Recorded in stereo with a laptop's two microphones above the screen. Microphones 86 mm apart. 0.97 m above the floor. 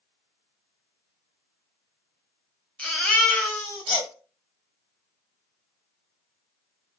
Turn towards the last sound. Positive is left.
turn(degrees=15)  # may be behind; listen again after turning